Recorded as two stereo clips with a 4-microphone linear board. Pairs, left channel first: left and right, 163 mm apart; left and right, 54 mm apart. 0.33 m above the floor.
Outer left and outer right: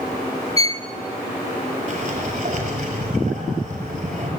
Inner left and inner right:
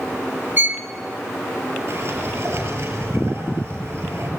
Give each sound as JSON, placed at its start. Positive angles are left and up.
{"t": 0.6, "sound": "a violin", "side_deg": -40, "distance_m": 0.8}
{"t": 1.9, "sound": "a sliding door", "side_deg": -55, "distance_m": 7.5}